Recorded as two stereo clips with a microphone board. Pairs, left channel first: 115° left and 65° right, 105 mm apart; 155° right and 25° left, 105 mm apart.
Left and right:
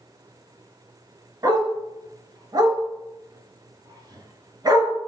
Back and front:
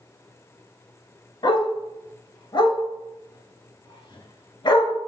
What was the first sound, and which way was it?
A dog barking, 115° right.